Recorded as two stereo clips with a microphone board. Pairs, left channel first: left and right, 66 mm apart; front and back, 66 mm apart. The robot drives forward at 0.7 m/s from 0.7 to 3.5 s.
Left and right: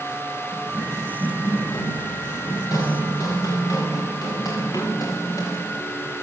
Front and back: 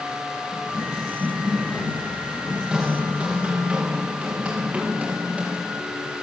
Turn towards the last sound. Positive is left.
turn(degrees=110)